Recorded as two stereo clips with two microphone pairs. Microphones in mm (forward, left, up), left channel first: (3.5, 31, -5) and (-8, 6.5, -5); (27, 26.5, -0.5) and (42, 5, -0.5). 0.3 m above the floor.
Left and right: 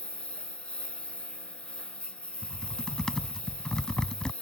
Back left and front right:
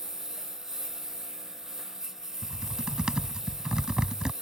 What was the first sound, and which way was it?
A lawn mower, 15° left.